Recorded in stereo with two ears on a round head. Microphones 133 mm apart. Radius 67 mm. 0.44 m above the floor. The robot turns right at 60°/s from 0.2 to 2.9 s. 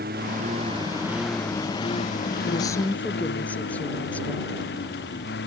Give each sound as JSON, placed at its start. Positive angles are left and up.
{"t": 0.0, "sound": "a lawn mower", "azimuth_deg": -65}
{"t": 2.5, "sound": "a woman speaking", "side_deg": 35}